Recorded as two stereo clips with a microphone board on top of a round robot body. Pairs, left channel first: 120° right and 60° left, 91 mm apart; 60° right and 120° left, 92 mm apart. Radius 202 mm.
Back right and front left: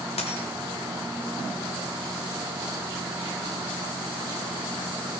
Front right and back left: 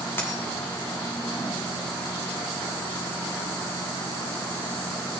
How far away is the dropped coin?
About 1.9 m.